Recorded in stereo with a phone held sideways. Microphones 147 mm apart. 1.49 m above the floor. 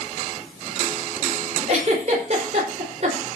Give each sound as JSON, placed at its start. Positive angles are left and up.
{"t": 1.7, "sound": "a giggle", "side_deg": -50, "distance_m": 5.0}